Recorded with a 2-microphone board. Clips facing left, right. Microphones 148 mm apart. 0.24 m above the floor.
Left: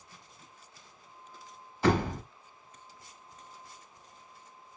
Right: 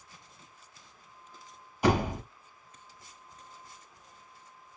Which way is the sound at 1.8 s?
15° right (ahead or behind).